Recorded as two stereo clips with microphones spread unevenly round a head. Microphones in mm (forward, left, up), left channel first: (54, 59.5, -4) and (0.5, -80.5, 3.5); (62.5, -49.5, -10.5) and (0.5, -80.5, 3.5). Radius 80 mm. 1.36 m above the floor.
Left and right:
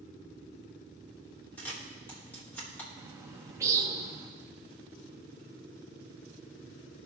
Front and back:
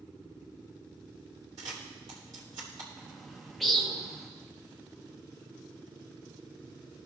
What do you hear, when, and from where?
1.6 s a camera shutter: 150° left, 1.3 m
3.0 s a bird: 100° right, 0.7 m